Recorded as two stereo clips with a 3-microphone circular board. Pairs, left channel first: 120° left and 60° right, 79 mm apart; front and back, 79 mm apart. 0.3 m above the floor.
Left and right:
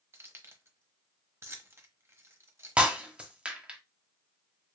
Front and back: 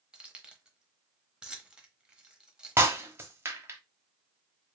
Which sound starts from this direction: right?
Keys jangling, at 0.1 s.